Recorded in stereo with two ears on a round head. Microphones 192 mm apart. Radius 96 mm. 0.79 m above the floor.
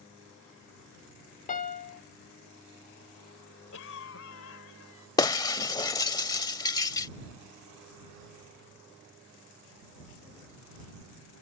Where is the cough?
70° left (ahead or behind).